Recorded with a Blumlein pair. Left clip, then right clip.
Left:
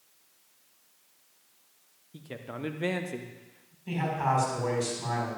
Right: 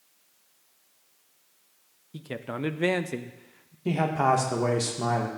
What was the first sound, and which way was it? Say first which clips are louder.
A man speaking: right 6 dB; 20° right.